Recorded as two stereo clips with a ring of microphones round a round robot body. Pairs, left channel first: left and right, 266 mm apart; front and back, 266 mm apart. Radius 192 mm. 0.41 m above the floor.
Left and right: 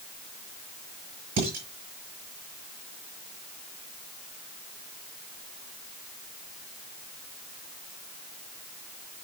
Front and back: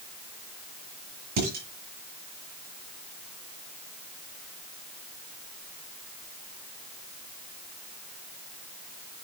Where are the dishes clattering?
135° right, 5.5 m.